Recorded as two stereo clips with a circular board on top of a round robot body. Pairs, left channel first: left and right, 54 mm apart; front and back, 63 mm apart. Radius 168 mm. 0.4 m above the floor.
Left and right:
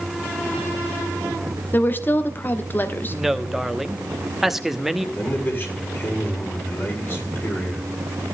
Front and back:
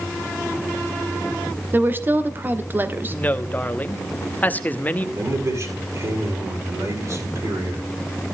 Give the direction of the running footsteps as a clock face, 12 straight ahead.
I don't hear running footsteps.